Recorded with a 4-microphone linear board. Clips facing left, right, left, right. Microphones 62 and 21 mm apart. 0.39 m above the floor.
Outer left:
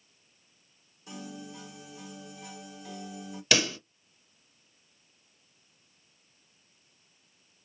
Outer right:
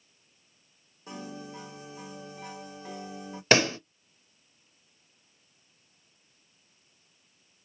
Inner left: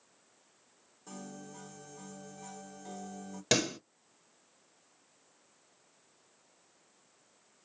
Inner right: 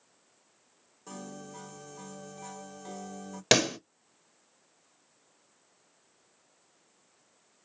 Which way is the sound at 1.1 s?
35° right (ahead or behind).